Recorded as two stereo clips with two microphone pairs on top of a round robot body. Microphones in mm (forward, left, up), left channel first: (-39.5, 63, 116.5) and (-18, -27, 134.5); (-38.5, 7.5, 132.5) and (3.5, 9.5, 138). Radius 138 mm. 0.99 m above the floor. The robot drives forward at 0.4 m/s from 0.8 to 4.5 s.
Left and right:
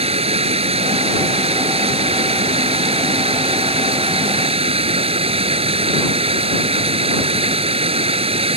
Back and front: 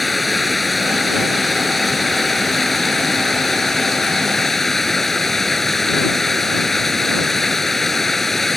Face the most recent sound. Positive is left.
turn(degrees=-90)